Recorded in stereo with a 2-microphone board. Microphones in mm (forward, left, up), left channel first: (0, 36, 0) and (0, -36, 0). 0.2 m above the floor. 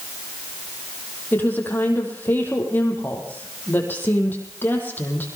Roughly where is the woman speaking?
Left.